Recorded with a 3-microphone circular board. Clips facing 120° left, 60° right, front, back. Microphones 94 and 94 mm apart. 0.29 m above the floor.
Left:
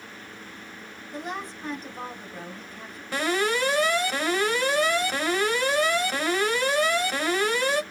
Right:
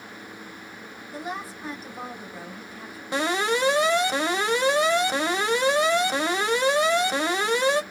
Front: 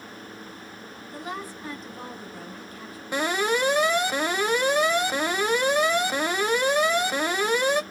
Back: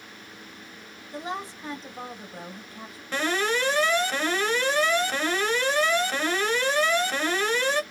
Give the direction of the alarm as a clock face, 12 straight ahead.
2 o'clock.